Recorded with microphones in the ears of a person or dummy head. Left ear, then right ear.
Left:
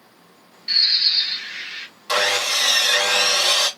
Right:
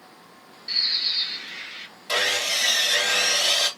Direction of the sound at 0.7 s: 25° left (ahead or behind).